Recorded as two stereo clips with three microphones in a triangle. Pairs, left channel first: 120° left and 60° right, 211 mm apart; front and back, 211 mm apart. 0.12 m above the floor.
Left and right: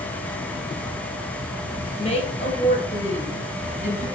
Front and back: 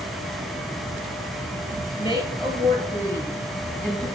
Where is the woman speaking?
65° left, 3 m; by 4.1 s 85° left, 2 m.